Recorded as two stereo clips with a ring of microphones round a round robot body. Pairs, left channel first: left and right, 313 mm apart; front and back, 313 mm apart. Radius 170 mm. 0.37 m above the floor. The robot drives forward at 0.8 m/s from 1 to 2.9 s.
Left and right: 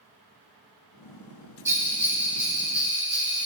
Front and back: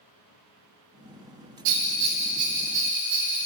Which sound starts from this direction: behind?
A bell, at 1.6 s.